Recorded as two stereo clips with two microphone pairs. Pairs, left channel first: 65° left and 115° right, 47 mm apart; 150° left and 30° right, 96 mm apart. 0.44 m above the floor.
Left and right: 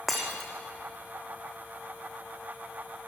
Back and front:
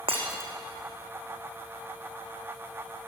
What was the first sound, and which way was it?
Breaking glass, 20° right.